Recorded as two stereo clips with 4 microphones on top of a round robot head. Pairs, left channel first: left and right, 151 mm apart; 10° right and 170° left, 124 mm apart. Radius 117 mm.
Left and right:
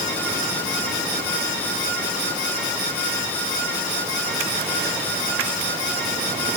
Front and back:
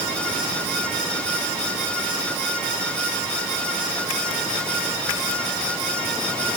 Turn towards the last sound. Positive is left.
No sound to turn to.